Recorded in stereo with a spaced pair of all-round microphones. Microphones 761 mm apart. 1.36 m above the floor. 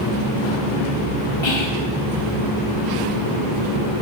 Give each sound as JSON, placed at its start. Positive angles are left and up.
{"t": 1.4, "sound": "whispering", "side_deg": 40, "distance_m": 1.1}